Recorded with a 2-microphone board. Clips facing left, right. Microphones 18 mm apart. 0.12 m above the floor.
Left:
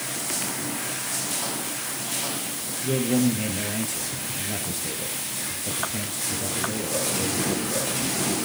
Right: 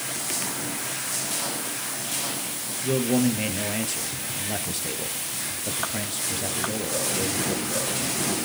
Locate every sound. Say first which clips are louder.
2.8 s a man speaking: even; 25° right (ahead or behind), 3 m